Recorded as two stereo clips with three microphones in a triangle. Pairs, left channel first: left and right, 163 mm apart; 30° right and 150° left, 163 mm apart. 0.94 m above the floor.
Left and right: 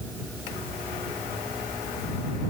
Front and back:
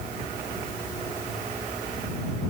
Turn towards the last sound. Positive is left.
No sound to turn to.